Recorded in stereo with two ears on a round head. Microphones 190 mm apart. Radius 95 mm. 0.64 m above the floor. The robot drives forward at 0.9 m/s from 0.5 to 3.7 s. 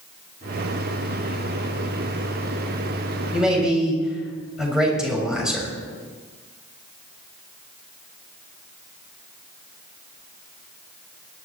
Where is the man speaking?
5° right (ahead or behind), 4 m.